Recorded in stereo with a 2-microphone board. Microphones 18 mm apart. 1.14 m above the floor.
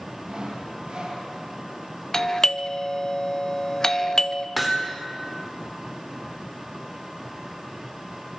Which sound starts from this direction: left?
A doorbell, at 2.1 s.